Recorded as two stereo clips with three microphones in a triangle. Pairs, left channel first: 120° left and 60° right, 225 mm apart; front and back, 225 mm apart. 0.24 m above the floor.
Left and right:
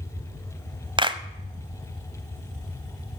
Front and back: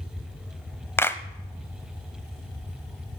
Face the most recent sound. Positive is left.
turn(degrees=-60)